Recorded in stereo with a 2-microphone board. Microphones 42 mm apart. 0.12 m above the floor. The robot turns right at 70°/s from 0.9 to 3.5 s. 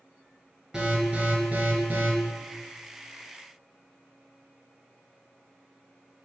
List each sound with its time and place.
0.7 s an alarm: 165° right, 1.2 m; by 2.1 s 80° right, 1.2 m